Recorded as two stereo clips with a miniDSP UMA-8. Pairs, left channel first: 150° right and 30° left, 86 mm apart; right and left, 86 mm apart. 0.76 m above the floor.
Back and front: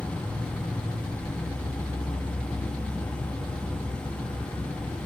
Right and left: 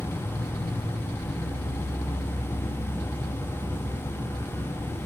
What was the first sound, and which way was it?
An insect, 135° right.